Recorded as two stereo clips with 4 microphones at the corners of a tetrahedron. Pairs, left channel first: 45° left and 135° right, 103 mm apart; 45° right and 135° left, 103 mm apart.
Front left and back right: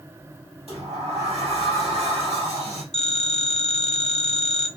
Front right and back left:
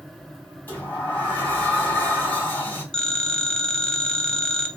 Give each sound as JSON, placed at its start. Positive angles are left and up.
{"t": 0.7, "sound": "a sliding door", "azimuth_deg": -115, "distance_m": 2.5}
{"t": 2.9, "sound": "a phone ringing", "azimuth_deg": 35, "distance_m": 0.8}